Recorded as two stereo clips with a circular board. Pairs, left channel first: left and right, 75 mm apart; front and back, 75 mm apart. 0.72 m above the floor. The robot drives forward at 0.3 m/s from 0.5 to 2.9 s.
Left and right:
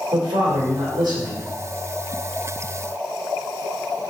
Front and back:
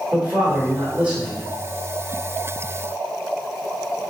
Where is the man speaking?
105° right, 2.5 m; by 1.5 s 110° right, 2.5 m.